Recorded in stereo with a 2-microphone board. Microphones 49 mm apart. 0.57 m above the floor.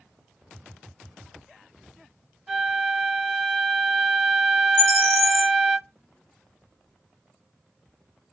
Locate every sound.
2.5 s a flute: 5° right (ahead or behind), 1.7 m
4.8 s a bird: 20° left (ahead or behind), 1.7 m